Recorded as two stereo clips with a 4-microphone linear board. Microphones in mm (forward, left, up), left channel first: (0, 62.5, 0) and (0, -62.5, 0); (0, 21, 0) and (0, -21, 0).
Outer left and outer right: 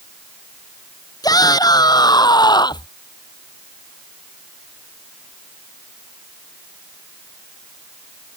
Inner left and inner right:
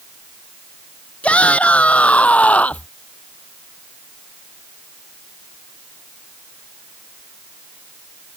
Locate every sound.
1.2 s a shout: 30° left (ahead or behind); by 2.9 s 35° left (ahead or behind)